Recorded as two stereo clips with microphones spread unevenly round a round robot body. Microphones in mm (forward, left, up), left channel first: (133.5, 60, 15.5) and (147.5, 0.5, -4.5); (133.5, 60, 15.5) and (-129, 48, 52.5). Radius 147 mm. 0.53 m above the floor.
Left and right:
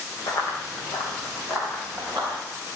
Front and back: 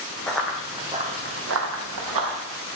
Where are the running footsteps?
90° left, 1.6 m; by 2.4 s 165° right, 1.7 m.